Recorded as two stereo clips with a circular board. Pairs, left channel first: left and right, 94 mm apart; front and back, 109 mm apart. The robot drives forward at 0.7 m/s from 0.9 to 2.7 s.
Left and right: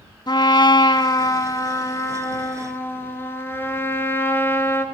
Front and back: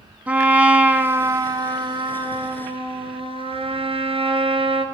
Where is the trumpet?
110° left, 0.9 m; by 4.8 s 155° left, 1.7 m.